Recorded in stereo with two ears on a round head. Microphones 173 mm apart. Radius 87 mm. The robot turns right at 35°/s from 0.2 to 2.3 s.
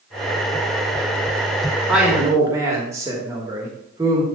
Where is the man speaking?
5° right (ahead or behind), 1.5 m; by 4.3 s 15° right (ahead or behind), 1.5 m.